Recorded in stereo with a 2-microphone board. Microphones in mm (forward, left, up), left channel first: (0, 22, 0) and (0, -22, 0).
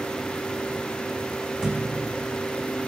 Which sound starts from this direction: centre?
A thud, at 1.6 s.